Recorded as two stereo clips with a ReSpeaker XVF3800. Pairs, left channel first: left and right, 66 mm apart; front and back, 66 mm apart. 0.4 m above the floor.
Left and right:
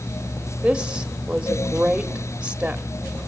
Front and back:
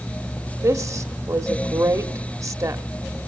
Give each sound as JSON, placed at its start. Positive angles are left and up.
{"t": 0.6, "sound": "a woman speaking", "azimuth_deg": -160, "distance_m": 1.2}